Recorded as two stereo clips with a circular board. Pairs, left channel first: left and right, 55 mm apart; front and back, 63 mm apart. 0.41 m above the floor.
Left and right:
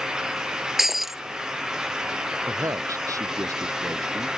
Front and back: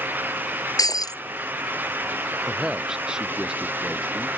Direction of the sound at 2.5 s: 100° right.